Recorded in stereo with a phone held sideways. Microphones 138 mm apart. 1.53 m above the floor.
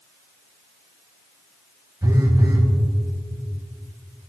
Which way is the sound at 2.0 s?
25° right (ahead or behind).